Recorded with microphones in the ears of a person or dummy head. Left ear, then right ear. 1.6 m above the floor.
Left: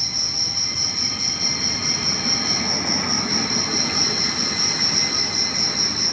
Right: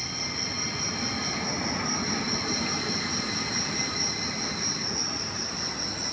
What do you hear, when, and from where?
0.0 s an insect: 30° left (ahead or behind), 1.2 m